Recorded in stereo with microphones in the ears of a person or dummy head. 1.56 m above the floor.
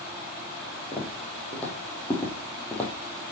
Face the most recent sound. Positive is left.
turn(degrees=15)  # may be behind; listen again after turning